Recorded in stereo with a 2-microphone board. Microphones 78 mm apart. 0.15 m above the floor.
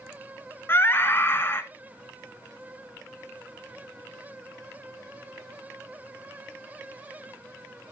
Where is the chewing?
I don't hear chewing.